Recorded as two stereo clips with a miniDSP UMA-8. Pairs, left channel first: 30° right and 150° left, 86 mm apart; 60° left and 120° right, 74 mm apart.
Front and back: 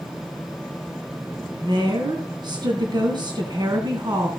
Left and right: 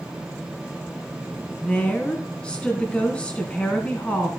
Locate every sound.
1.6 s a woman speaking: 130° left, 2.5 m